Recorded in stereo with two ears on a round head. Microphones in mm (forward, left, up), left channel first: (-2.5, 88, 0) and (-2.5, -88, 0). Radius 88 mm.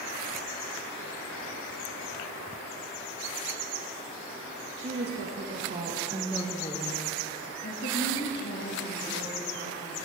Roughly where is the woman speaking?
Right.